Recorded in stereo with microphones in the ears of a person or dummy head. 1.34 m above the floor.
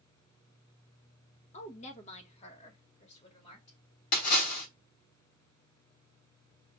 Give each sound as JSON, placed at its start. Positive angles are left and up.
{"t": 1.5, "sound": "a woman speaking", "side_deg": 45, "distance_m": 1.5}
{"t": 4.1, "sound": "a splash", "side_deg": 60, "distance_m": 2.0}